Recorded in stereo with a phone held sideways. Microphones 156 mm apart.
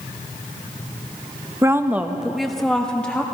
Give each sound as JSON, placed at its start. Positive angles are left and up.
{"t": 1.6, "sound": "a woman speaking", "side_deg": -20, "distance_m": 0.6}